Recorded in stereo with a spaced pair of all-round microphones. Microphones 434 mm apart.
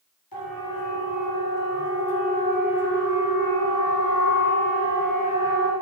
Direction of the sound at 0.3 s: 55° left (ahead or behind).